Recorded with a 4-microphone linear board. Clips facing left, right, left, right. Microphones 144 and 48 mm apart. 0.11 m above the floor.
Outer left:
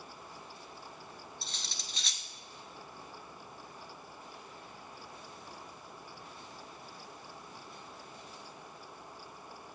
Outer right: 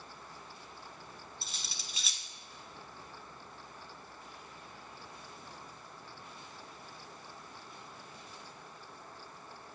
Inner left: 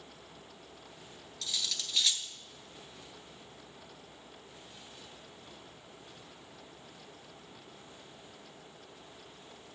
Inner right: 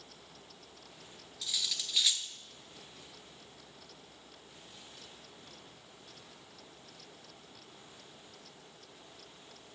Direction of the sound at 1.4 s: 5° right (ahead or behind).